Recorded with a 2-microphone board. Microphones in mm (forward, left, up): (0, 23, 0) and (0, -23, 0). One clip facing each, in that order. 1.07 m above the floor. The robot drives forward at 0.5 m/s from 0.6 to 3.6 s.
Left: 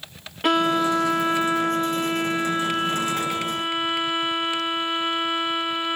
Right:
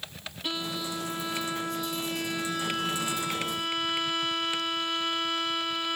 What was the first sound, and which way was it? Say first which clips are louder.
A violin: left 14 dB; 60° left (ahead or behind).